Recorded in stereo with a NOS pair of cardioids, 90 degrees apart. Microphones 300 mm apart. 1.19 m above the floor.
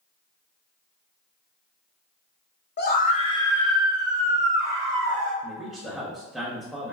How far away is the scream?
About 0.9 m.